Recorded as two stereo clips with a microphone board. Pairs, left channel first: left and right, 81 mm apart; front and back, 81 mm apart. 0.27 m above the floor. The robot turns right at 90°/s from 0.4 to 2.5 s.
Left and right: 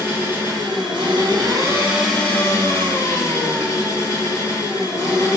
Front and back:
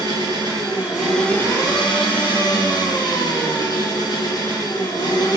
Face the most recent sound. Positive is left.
turn(degrees=40)